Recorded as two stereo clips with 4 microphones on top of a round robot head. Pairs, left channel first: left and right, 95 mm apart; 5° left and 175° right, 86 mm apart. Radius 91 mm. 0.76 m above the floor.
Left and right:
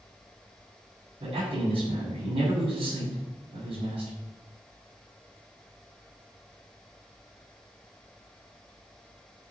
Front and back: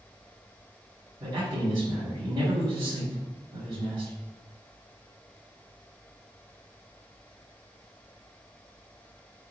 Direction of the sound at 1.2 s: 125° right.